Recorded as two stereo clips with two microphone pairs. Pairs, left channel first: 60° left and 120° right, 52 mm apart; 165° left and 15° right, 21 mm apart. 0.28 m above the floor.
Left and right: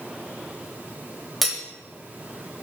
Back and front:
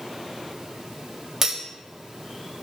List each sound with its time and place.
1.4 s cutlery clinking: 40° right, 0.5 m